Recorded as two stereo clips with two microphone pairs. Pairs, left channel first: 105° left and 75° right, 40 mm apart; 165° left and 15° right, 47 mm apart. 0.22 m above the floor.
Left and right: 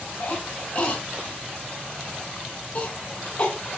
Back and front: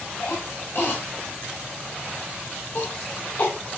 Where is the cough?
130° left, 2.5 m.